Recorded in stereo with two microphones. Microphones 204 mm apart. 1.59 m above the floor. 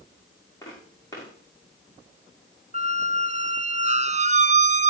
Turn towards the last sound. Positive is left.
turn(degrees=-35)  # may be behind; listen again after turning